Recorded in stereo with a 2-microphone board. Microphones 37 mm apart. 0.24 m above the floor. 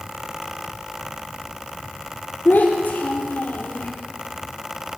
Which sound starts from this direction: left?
A child speaking, at 2.5 s.